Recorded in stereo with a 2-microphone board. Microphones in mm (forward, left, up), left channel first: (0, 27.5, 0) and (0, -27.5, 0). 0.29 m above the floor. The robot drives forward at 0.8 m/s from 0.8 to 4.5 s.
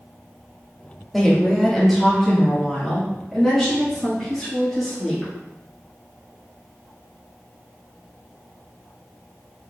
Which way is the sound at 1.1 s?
Centre (ahead or behind).